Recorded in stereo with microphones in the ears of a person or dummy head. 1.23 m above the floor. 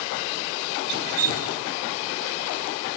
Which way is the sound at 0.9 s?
60° right (ahead or behind).